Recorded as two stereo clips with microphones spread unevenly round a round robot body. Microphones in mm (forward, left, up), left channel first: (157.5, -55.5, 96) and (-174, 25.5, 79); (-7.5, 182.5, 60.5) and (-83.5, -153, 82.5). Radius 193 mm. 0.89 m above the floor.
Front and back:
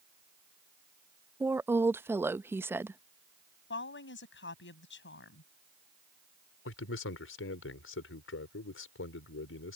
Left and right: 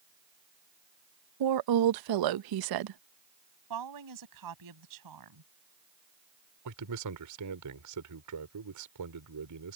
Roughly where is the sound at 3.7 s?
Right.